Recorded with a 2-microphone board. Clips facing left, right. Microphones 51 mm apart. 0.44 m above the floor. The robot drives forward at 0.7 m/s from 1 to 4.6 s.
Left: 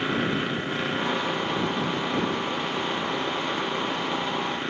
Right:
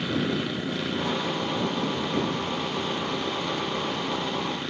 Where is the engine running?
30° left (ahead or behind).